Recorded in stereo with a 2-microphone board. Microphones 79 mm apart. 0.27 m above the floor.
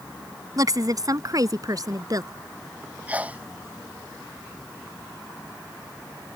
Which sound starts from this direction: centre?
A sneeze, at 3.1 s.